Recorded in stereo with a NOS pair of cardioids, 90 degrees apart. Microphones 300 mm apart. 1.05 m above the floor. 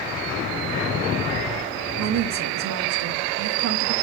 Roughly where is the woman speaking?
Ahead right.